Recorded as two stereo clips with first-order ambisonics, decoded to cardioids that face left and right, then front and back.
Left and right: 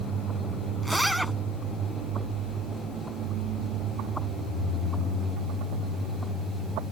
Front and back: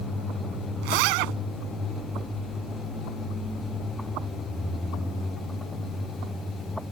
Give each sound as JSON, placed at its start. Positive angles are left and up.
{"t": 0.8, "sound": "a zipper", "azimuth_deg": 180}